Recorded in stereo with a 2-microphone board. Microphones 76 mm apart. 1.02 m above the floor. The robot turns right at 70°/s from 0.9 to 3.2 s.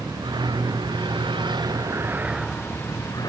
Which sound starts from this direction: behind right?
A vehicle, at 0.0 s.